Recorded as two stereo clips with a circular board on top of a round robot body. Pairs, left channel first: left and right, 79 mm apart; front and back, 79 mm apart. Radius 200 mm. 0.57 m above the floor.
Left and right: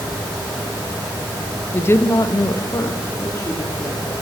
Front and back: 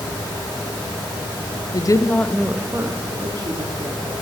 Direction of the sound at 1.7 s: 25° left.